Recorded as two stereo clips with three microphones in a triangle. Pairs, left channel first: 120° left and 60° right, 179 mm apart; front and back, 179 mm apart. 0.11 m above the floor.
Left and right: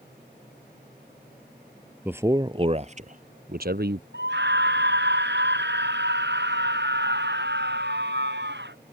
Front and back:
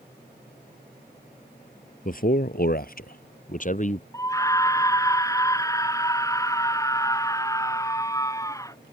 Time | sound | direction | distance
2.0 | a man speaking | 20° left | ?
4.1 | a scream | 75° right | ?